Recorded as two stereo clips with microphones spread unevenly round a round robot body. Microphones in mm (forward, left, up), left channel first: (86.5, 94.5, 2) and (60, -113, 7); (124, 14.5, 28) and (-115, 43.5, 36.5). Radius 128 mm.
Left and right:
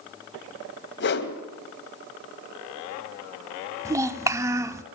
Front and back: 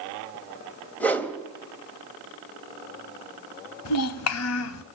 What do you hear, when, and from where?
1.0 s a whoosh: 75° left, 2 m
3.9 s a child speaking: 20° right, 1.2 m